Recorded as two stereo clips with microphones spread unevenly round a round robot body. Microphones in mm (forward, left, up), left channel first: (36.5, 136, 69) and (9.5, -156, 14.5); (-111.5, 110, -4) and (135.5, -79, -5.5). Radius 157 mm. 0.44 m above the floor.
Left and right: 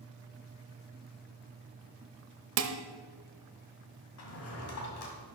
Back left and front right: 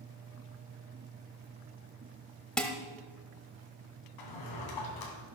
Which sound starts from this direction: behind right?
Dishes clattering, at 2.6 s.